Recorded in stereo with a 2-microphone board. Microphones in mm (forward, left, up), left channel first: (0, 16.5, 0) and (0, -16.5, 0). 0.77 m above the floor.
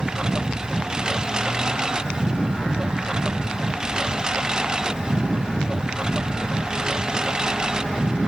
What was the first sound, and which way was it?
A lawn mower, 20° right (ahead or behind).